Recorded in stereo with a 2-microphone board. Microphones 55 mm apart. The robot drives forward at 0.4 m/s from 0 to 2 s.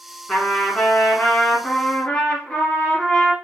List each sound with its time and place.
0.3 s a trumpet: 10° left (ahead or behind), 1.6 m; by 3.3 s 15° left (ahead or behind), 1.2 m